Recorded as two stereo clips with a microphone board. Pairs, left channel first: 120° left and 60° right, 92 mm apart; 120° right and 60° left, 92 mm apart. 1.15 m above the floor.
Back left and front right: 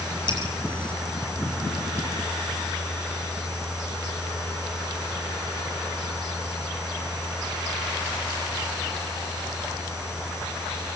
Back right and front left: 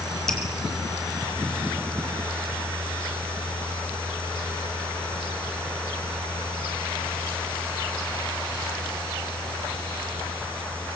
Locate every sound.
0.3 s dripping: 155° left, 7 m